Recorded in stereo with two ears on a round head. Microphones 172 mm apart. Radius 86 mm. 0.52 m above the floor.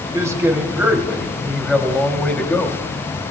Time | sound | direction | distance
0.1 | a man speaking | 20° right (ahead or behind) | 2.5 m